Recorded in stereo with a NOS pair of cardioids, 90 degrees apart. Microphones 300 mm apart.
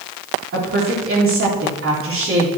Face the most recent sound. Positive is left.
turn(degrees=-45)